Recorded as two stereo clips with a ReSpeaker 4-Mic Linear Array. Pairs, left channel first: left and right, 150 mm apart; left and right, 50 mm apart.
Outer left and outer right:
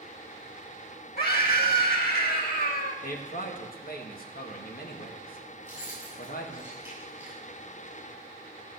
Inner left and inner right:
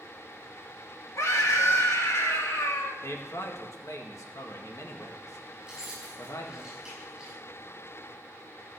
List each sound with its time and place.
1.2 s a scream: 80° left, 2.5 m
3.0 s a man speaking: 70° left (ahead or behind), 1.7 m
5.6 s keys jangling: 10° right (ahead or behind), 6.5 m